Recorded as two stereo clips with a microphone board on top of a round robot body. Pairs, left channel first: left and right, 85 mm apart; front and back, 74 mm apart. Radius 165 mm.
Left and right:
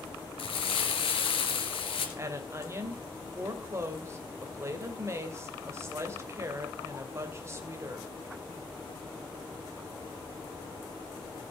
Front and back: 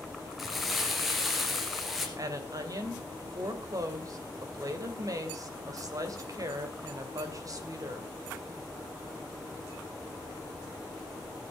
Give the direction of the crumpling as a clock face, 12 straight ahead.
9 o'clock.